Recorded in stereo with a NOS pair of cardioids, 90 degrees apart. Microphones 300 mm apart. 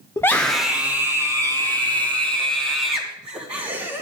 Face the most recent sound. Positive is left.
turn(degrees=-20)